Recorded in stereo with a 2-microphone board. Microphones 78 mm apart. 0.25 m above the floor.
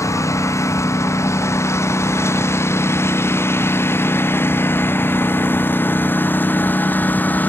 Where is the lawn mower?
40° left (ahead or behind); by 7.5 s 20° left (ahead or behind).